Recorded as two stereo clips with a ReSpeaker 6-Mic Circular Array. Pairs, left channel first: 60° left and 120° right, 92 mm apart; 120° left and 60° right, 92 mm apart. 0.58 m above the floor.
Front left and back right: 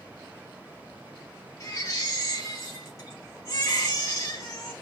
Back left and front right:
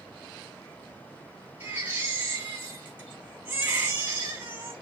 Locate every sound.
1.6 s a baby crying: 5° left, 4.5 m